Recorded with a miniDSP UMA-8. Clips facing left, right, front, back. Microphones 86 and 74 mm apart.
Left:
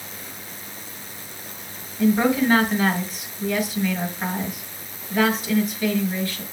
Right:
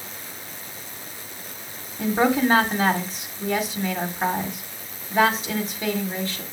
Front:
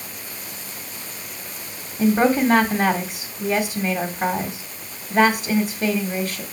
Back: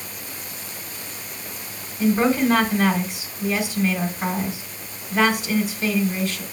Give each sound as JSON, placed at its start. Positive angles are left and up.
{"t": 2.0, "sound": "a woman speaking", "azimuth_deg": -30, "distance_m": 1.7}